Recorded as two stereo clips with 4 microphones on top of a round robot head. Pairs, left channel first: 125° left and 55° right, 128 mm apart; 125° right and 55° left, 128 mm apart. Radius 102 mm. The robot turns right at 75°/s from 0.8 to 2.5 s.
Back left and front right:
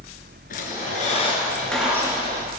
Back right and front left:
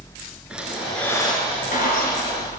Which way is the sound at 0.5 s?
140° left.